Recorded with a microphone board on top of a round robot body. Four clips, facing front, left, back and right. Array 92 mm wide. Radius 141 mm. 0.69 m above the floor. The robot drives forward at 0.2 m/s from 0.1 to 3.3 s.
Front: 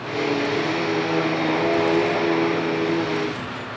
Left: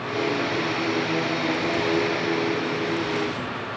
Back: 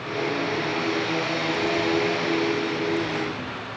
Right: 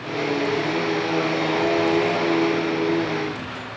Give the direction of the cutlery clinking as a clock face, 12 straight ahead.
I don't hear cutlery clinking.